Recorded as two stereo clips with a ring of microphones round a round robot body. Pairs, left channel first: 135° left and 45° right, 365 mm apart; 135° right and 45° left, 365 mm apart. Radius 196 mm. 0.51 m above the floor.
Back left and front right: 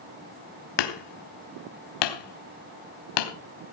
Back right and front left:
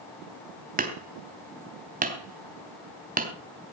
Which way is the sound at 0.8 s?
115° left.